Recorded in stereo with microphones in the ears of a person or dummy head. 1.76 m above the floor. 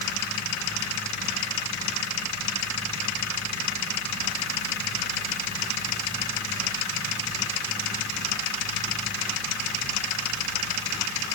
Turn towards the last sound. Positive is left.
No sound to turn to.